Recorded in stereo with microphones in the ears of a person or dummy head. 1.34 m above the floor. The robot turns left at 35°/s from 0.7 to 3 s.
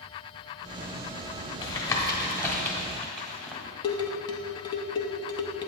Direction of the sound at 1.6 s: 25° left (ahead or behind).